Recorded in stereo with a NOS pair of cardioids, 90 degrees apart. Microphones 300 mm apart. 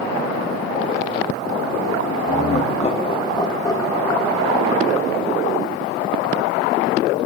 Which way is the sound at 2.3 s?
25° left.